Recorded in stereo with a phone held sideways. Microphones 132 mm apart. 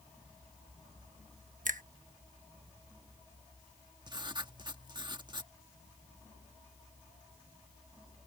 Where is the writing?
35° right (ahead or behind).